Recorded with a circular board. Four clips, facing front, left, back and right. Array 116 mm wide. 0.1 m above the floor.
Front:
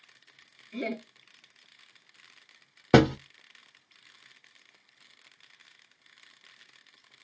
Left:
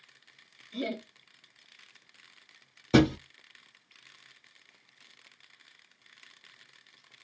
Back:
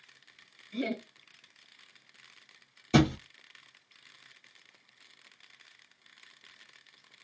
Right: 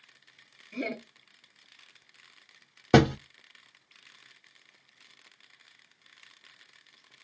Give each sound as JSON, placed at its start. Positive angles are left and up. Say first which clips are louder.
{"t": 0.7, "sound": "laughter", "louder": "even, even", "azimuth_deg": -70, "distance_m": 1.3}
{"t": 2.9, "sound": "a thud", "louder": "right 2 dB, front 5 dB", "azimuth_deg": -30, "distance_m": 0.8}